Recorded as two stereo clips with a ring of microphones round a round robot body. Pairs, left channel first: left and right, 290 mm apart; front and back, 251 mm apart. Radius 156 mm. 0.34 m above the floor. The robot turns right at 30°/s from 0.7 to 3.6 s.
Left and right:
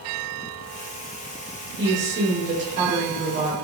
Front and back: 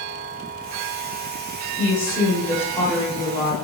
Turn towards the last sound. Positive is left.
turn(degrees=-50)